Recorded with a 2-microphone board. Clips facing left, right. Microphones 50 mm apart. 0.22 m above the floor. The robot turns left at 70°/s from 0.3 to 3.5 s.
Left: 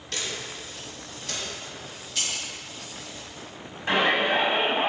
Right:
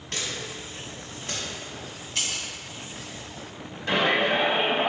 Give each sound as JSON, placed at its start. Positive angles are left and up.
{"t": 0.1, "sound": "a camera shutter", "side_deg": -35, "distance_m": 1.5}
{"t": 2.1, "sound": "breaking glass", "side_deg": -30, "distance_m": 1.8}
{"t": 3.9, "sound": "a shout", "side_deg": 35, "distance_m": 1.1}